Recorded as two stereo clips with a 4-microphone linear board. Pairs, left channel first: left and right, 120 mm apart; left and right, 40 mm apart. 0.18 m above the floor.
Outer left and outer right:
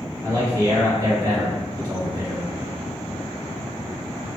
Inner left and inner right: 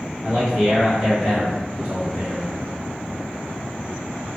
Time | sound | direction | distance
0.2 | a man speaking | 30° right (ahead or behind) | 1.2 m